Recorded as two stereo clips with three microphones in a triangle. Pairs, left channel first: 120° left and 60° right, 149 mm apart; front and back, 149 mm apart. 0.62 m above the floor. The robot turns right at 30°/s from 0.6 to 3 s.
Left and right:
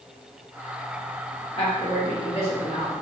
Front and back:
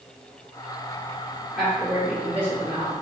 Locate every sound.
1.6 s a woman speaking: 90° left, 0.9 m; by 3.0 s 130° left, 0.9 m